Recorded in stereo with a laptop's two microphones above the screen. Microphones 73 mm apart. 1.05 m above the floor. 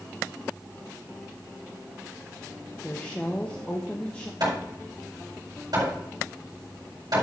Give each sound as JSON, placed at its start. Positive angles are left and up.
{"t": 2.8, "sound": "a woman speaking", "side_deg": 20, "distance_m": 0.9}
{"t": 4.4, "sound": "hammering", "side_deg": -60, "distance_m": 4.5}